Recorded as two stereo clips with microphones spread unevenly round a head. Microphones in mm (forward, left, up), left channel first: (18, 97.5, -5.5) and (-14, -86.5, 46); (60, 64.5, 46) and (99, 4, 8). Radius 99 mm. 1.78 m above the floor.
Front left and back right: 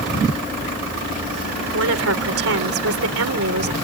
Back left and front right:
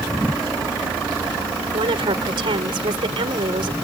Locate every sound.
1.7 s a woman speaking: 90° right